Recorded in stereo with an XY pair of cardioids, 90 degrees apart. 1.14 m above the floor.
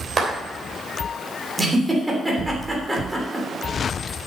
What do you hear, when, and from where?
0.2 s a clap: 40° right, 3 m
1.6 s a giggle: 15° right, 3 m